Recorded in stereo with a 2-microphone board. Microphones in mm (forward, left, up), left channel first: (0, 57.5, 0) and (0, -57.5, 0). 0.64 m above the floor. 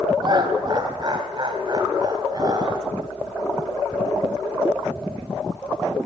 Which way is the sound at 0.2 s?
40° right (ahead or behind).